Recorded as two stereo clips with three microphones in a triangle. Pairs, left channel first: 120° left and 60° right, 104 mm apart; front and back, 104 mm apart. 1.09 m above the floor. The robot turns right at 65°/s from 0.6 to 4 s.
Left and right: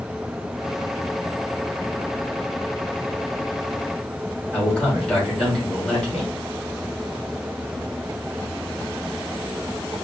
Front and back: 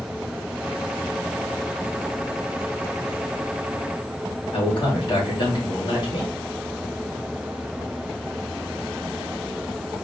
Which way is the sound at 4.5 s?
40° left.